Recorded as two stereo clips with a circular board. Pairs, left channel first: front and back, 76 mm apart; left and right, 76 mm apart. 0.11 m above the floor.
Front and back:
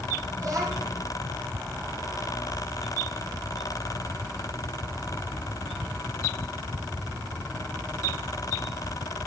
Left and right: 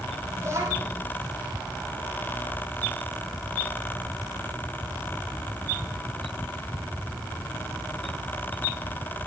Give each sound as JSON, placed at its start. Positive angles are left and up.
{"t": 0.4, "sound": "a child speaking", "azimuth_deg": -140, "distance_m": 3.5}